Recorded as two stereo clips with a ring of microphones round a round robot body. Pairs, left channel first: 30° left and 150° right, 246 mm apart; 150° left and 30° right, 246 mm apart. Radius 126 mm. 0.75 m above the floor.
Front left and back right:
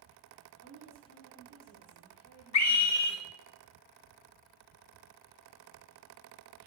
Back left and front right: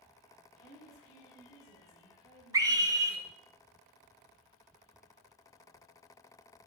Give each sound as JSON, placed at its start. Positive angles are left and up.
{"t": 0.6, "sound": "a woman speaking", "azimuth_deg": -135, "distance_m": 4.5}
{"t": 2.5, "sound": "a scream", "azimuth_deg": 45, "distance_m": 1.7}